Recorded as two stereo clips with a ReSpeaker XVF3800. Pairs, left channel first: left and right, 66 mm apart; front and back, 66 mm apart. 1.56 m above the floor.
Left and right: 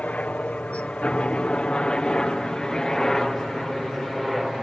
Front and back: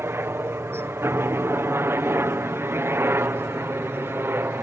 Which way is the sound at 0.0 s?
150° left.